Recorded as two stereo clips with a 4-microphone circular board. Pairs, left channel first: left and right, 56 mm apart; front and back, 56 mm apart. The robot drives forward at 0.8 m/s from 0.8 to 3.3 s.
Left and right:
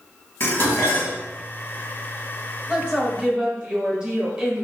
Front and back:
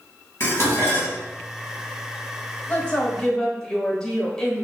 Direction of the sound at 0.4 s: 45° left.